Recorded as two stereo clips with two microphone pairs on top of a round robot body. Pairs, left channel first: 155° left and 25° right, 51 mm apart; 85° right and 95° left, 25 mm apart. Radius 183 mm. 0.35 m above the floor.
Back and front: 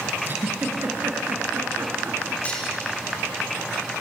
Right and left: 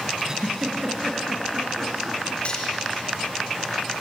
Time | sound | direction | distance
0.2 | a giggle | 30° left | 4 m
2.5 | cutlery clinking | 135° right | 5.5 m